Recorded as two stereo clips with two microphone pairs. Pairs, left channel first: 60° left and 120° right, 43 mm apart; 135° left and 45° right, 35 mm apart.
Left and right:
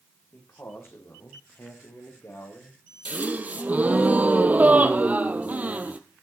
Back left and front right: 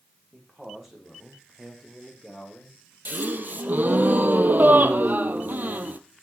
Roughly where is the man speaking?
Ahead left.